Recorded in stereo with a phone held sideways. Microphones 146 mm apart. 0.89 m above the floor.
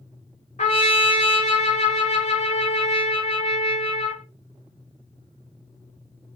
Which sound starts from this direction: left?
A trumpet, at 0.6 s.